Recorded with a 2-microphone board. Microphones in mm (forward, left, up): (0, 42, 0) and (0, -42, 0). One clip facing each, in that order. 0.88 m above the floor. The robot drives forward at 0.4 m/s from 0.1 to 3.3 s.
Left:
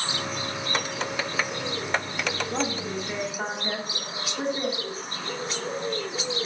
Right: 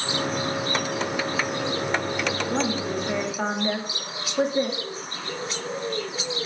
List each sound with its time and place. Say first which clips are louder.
2.5 s a woman speaking: right 3 dB; 65° right (ahead or behind), 2.0 m